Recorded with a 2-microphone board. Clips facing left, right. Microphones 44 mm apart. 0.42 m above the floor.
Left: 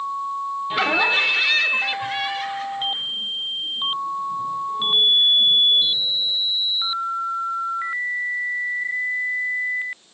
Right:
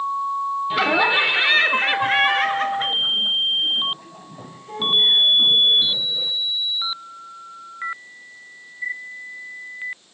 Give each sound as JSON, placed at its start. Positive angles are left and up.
{"t": 0.7, "sound": "laughter", "side_deg": 5, "distance_m": 0.8}